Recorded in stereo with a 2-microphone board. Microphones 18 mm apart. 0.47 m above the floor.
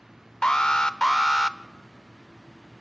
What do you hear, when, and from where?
0.4 s an alarm: 45° left (ahead or behind), 0.9 m